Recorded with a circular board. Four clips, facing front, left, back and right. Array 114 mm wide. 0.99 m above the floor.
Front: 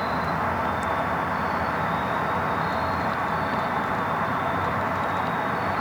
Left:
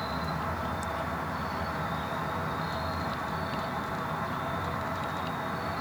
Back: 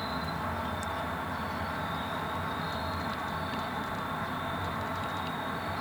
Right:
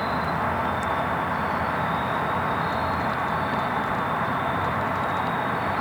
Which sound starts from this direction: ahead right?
An insect, at 0.0 s.